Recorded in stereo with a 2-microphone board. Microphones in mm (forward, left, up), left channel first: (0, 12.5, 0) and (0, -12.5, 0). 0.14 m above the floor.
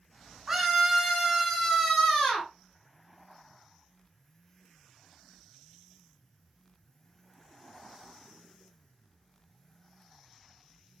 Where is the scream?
25° right (ahead or behind), 1.8 m; by 2.5 s 20° left (ahead or behind), 1.8 m.